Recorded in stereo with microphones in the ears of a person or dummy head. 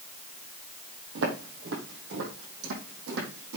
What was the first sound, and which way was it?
Footsteps, 60° right (ahead or behind).